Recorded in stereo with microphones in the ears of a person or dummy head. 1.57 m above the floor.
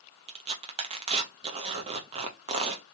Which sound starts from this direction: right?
Tearing paper, at 0.3 s.